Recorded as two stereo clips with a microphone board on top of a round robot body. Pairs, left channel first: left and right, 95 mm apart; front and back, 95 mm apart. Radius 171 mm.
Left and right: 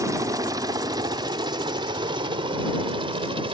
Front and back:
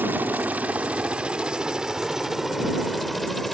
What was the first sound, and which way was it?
A helicopter, 120° right.